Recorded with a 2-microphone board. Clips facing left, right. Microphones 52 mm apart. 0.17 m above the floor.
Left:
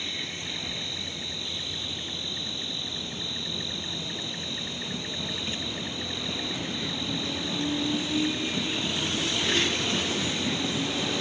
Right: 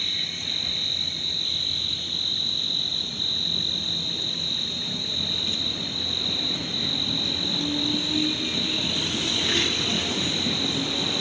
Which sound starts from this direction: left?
An insect, at 0.0 s.